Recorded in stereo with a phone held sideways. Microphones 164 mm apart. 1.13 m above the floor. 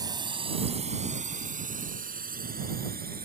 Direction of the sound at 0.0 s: 25° right (ahead or behind).